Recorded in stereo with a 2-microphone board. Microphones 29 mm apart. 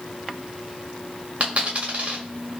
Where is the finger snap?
No finger snap in this recording.